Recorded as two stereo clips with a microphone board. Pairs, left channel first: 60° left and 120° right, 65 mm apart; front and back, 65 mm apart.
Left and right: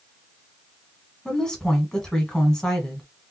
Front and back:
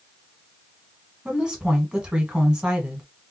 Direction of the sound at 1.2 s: 125° left.